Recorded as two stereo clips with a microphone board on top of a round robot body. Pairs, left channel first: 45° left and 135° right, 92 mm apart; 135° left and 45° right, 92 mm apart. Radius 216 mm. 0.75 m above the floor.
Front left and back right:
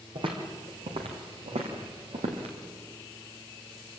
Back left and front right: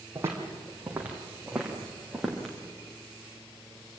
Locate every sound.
0.1 s footsteps: 110° right, 2.5 m; by 2.5 s 135° right, 3 m